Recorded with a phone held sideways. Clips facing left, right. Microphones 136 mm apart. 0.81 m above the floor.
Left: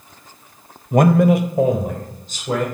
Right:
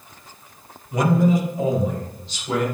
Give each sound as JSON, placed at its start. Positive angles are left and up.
{"t": 0.9, "sound": "a man speaking", "side_deg": 45, "distance_m": 0.6}